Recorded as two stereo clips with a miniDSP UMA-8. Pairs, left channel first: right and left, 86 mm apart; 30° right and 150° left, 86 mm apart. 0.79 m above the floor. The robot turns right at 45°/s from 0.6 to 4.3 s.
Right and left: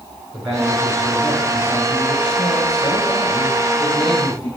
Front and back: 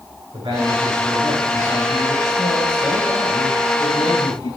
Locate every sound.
0.3 s a man speaking: 170° left, 7 m; by 4.5 s 25° right, 7 m